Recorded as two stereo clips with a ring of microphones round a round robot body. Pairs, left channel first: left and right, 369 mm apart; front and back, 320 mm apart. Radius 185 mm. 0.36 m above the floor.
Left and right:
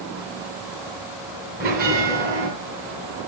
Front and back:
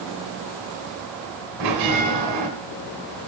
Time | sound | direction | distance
1.6 | a bell | 155° right | 3 m